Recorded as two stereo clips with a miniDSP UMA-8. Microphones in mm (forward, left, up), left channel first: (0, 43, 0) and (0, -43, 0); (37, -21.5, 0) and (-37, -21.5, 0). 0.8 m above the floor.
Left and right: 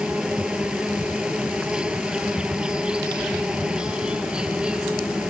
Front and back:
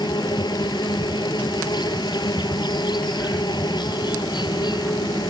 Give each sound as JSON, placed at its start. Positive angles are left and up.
{"t": 0.0, "sound": "an insect", "azimuth_deg": -10}